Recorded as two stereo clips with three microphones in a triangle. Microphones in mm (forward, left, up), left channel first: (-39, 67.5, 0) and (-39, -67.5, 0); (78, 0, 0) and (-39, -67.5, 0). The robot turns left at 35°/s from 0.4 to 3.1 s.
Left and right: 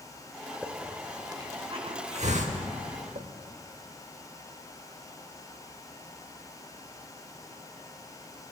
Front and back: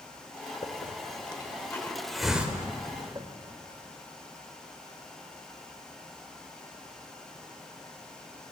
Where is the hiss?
5° right, 1.0 m; by 3.3 s 90° right, 1.0 m.